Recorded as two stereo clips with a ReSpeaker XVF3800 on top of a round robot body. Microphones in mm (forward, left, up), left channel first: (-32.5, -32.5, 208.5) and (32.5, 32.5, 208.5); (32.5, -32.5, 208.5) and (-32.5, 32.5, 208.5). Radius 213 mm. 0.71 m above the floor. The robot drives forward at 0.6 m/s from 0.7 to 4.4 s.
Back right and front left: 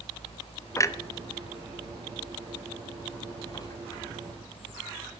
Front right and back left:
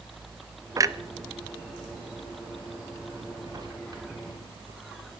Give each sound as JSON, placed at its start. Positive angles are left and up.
{"t": 0.8, "sound": "a clunk", "azimuth_deg": 175, "distance_m": 1.0}